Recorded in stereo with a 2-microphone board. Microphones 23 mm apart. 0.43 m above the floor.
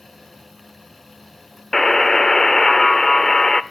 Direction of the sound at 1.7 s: 20° left (ahead or behind).